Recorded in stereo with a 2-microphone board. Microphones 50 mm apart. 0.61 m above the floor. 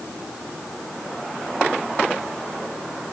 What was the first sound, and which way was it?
Only background noise.